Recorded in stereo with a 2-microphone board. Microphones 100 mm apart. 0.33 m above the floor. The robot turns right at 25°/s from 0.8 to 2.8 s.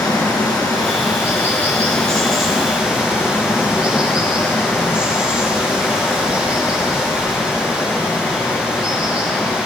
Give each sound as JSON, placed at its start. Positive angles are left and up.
{"t": 0.0, "sound": "running water", "azimuth_deg": 140, "distance_m": 3.5}